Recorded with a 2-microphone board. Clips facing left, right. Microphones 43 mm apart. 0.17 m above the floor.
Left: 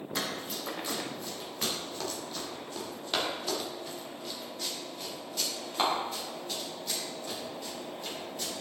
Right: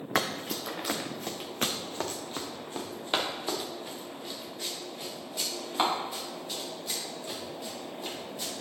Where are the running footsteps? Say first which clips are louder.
Right 6 dB; 80° right, 1.0 m; by 8.5 s 5° right (ahead or behind), 5 m.